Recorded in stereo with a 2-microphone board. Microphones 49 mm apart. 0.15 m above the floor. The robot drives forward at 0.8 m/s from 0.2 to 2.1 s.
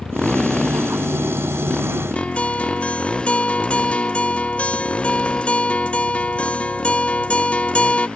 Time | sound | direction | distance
0.0 | a motorcycle | 10° left (ahead or behind) | ?
2.1 | a guitar | 25° left (ahead or behind) | ?